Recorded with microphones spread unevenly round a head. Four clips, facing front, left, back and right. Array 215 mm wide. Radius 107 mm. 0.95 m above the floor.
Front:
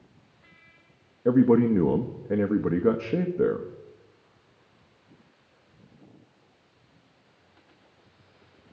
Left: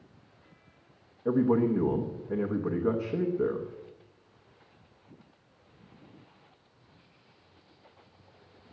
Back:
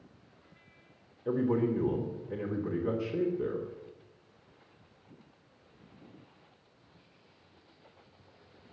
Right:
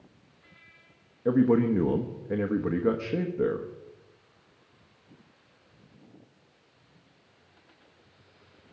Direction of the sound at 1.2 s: 20° right.